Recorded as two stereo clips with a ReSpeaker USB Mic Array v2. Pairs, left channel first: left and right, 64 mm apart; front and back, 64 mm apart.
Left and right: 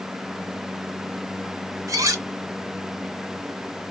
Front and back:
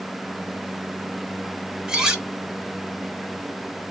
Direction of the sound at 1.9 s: 100° right.